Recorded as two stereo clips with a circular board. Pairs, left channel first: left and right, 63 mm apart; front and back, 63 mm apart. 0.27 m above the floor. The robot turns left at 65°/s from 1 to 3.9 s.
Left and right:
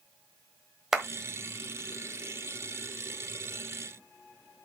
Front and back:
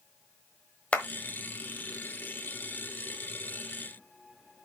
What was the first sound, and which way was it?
A clap, 25° right.